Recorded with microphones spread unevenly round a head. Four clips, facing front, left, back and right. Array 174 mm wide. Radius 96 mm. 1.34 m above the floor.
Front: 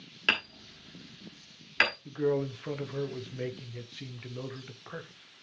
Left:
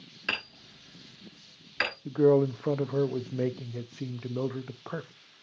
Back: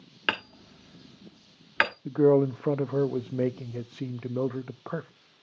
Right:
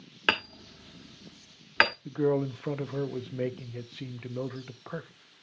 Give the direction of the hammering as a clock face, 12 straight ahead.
4 o'clock.